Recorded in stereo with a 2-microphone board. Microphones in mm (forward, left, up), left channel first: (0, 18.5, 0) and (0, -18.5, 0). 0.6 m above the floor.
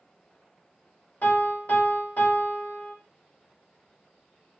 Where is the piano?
45° left (ahead or behind), 1.4 m.